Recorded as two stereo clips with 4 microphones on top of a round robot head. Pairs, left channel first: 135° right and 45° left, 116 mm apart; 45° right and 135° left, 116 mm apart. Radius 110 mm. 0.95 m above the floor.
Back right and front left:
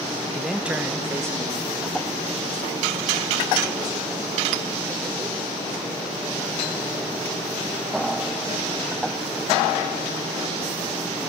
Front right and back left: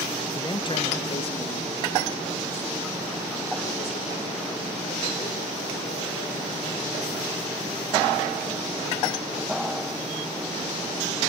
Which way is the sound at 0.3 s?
50° right.